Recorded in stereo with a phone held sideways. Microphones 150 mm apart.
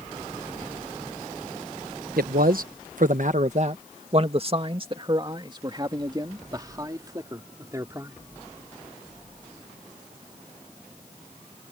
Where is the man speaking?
80° right; by 8.2 s 20° right (ahead or behind).